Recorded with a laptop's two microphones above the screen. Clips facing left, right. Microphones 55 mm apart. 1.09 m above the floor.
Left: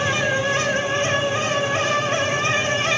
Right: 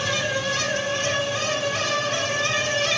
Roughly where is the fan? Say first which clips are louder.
Left 4 dB; left.